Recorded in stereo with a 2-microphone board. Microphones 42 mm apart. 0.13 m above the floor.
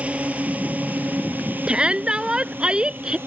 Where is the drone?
35° right (ahead or behind); by 3.3 s 60° right (ahead or behind).